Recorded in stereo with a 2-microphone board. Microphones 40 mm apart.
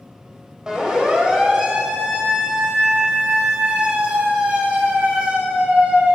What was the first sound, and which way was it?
A siren, 15° right (ahead or behind).